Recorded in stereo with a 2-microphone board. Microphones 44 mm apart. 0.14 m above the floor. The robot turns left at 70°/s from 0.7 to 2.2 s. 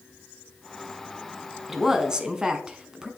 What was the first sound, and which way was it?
A woman speaking, 5° right (ahead or behind).